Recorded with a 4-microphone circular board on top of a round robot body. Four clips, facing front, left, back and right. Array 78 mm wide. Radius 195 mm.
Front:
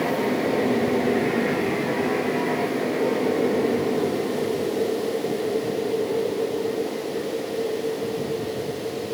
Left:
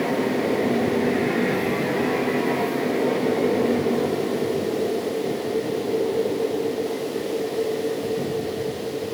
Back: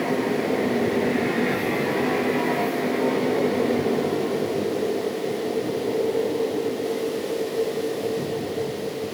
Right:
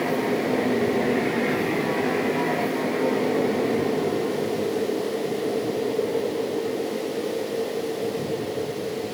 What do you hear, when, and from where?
Only background noise.